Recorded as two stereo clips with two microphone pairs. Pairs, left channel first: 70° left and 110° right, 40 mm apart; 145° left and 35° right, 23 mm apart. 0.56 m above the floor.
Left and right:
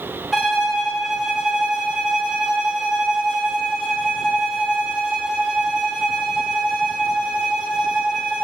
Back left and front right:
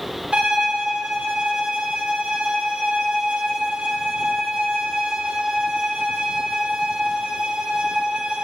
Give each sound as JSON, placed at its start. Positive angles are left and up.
{"t": 0.3, "sound": "a violin", "azimuth_deg": -25, "distance_m": 1.7}